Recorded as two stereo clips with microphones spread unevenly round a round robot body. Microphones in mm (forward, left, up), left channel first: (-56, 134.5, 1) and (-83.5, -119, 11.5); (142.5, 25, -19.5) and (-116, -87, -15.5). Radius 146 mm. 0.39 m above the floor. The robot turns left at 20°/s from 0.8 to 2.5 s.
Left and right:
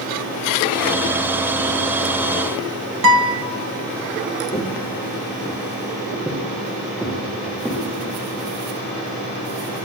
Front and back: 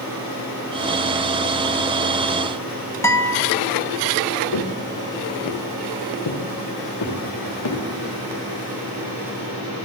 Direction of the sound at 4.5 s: 10° left.